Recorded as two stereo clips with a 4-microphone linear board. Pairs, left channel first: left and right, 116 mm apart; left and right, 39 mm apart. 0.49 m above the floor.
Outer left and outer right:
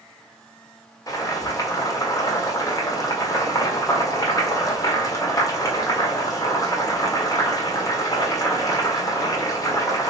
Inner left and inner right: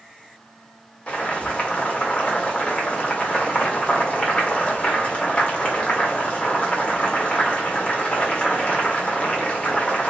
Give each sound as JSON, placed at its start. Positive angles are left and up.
{"t": 1.1, "sound": "boiling", "side_deg": 30, "distance_m": 1.3}